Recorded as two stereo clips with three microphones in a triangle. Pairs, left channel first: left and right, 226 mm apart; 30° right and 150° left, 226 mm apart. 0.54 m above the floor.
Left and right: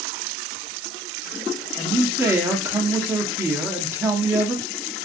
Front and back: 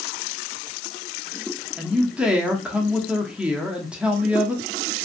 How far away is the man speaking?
About 0.6 m.